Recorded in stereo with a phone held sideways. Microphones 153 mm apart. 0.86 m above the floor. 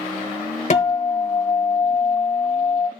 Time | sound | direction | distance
0.7 | a guitar | 50° left (ahead or behind) | 1.2 m